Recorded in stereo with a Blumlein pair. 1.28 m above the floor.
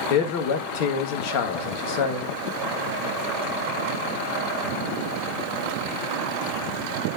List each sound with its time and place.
0.1 s a man speaking: 45° left, 1.6 m